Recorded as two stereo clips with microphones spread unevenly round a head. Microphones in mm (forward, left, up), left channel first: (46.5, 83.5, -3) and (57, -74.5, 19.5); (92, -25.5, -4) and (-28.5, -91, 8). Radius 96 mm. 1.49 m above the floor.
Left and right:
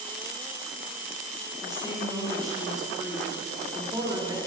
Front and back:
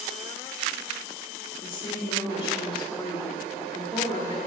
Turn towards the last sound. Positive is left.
turn(degrees=-20)